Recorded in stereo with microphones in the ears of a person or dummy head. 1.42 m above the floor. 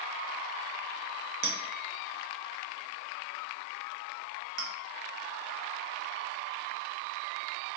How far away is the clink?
About 0.6 m.